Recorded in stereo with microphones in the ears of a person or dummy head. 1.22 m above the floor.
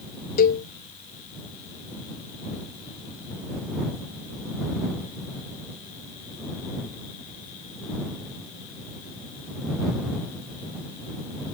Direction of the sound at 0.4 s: 50° left (ahead or behind).